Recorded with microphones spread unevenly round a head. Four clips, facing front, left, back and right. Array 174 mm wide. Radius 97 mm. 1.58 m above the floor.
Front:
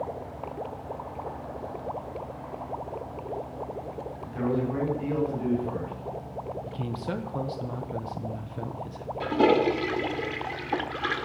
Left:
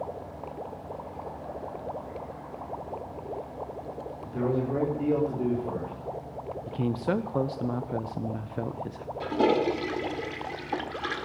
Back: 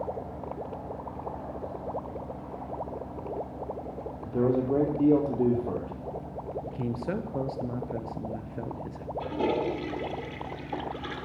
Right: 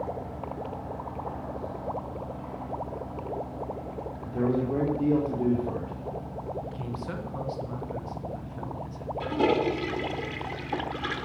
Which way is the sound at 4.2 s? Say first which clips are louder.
Right 1 dB, back 3 dB; straight behind.